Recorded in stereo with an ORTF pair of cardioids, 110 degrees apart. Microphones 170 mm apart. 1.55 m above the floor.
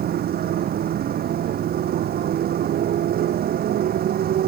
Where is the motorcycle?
60° right.